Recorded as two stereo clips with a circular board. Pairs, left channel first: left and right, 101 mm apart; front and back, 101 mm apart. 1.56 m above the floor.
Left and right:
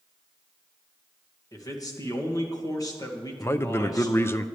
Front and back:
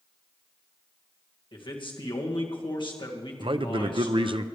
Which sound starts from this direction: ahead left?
A man speaking, at 1.5 s.